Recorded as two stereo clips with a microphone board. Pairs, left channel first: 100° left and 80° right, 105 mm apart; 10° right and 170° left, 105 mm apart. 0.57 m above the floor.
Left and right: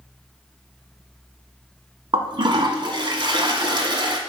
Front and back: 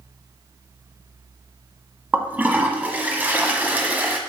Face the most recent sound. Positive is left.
turn(degrees=-120)